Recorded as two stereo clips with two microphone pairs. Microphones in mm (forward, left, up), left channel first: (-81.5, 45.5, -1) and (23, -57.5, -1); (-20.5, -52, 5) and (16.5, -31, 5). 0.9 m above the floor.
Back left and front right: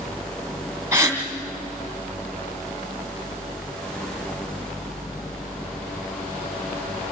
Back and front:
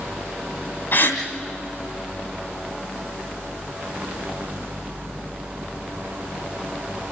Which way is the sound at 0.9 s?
120° right.